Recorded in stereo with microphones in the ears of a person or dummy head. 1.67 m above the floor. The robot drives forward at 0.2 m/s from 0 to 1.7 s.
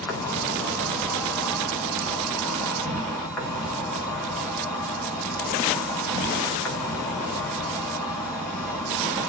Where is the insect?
15° left (ahead or behind), 0.7 m; by 9.3 s 10° left (ahead or behind), 1.0 m.